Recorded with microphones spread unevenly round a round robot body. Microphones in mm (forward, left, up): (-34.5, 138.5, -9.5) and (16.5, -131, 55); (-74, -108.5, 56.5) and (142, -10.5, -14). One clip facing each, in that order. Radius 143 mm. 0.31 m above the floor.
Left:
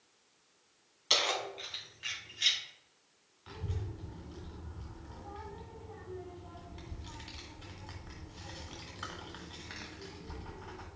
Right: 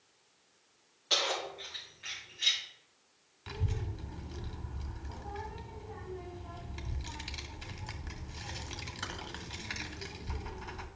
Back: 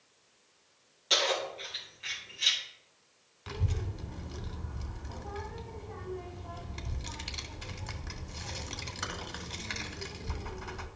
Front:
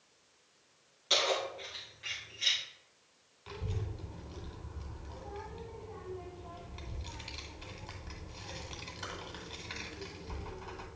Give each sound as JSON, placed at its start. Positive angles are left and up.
{"t": 1.1, "sound": "keys jangling", "azimuth_deg": 110, "distance_m": 2.0}
{"t": 3.5, "sound": "a child speaking", "azimuth_deg": -130, "distance_m": 1.7}